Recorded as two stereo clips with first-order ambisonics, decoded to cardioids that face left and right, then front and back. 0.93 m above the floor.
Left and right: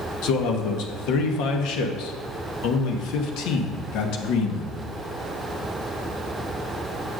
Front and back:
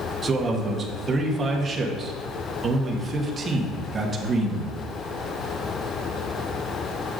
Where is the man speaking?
110° left, 1.0 m.